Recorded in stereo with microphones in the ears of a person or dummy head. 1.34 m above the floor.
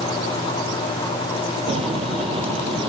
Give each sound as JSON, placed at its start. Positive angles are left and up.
{"t": 1.7, "sound": "footsteps", "side_deg": -30}